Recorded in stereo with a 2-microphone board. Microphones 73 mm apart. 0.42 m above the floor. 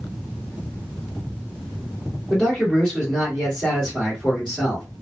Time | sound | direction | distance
2.3 | a man speaking | centre (ahead or behind) | 1.8 m